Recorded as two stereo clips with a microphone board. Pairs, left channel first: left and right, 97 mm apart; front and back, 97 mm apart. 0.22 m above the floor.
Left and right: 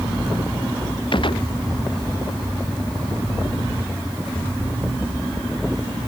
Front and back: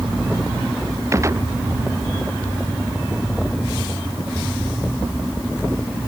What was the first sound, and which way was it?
A gunshot, 120° left.